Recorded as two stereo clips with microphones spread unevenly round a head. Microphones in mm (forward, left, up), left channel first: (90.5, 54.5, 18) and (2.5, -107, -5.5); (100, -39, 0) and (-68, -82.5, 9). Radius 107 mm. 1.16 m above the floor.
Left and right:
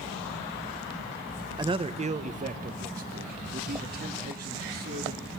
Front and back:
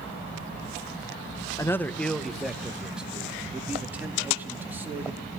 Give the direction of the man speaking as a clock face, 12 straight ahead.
2 o'clock.